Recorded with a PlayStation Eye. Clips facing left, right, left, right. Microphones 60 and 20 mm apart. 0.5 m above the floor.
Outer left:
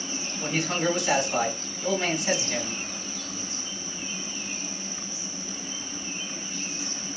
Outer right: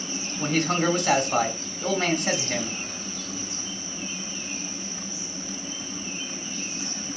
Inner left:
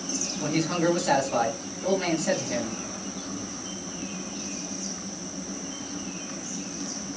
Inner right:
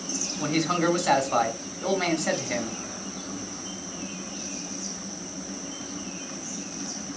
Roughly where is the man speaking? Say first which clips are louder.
Outer right 3 dB, inner right 1 dB; right.